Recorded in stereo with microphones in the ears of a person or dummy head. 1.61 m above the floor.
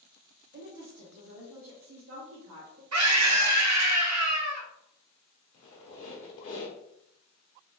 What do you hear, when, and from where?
0.5 s a woman speaking: 35° right (ahead or behind), 0.9 m; by 2.8 s 70° right (ahead or behind), 1.9 m
2.9 s a scream: 75° right (ahead or behind), 0.9 m
5.5 s a squeak: 35° left (ahead or behind), 0.7 m